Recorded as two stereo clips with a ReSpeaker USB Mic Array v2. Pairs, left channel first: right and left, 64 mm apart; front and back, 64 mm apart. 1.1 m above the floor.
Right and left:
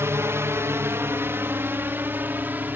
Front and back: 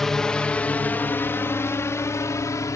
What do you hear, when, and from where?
0.0 s a drone: 80° left; by 2.8 s 30° left